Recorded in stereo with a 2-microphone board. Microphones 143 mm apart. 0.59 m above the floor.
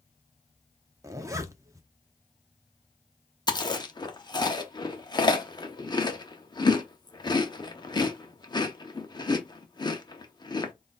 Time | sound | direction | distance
1.0 | a zipper | 20° right (ahead or behind) | 0.7 m
3.5 | chewing | 30° left (ahead or behind) | 0.7 m